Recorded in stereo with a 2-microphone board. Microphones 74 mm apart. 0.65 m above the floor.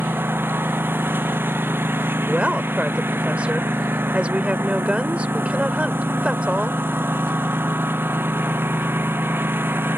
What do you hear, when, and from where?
0.0 s a lawn mower: 30° right (ahead or behind)
2.3 s a woman speaking: 15° right (ahead or behind)